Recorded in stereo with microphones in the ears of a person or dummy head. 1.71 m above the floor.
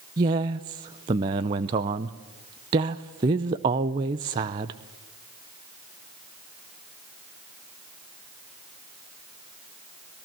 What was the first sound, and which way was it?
A man speaking, 20° right (ahead or behind).